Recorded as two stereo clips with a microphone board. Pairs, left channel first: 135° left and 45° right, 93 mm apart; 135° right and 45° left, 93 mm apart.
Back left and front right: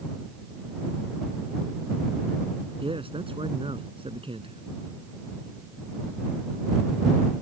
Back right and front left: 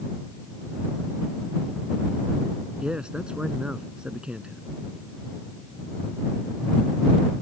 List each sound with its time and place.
2.8 s a man speaking: 35° right